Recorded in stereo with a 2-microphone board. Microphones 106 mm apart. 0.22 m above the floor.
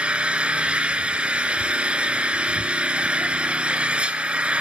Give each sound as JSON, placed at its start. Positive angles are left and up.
{"t": 0.0, "sound": "an engine running", "side_deg": -10, "distance_m": 0.8}